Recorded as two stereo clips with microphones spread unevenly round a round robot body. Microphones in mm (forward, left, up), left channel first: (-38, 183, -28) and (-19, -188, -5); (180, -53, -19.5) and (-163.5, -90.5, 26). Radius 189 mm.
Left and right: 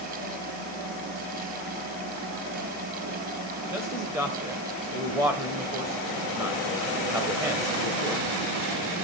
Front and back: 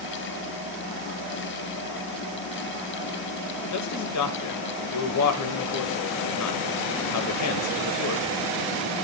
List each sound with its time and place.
3.7 s a man speaking: straight ahead, 1.3 m